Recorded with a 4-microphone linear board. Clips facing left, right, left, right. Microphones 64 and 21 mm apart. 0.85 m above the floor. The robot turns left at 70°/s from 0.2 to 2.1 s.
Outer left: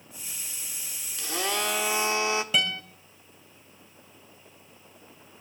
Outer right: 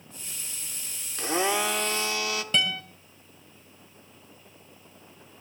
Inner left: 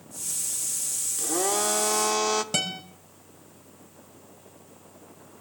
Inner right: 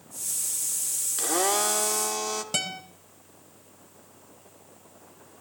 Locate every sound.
1.2 s a blender: 140° right, 0.9 m; by 2.4 s 155° left, 0.9 m
2.5 s a guitar: 5° left (ahead or behind), 2.5 m